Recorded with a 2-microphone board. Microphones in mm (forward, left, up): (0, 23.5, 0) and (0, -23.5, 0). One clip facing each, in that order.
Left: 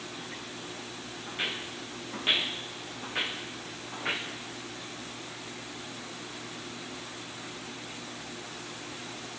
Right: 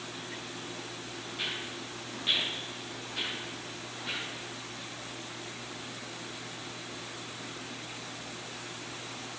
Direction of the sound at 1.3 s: 30° left (ahead or behind).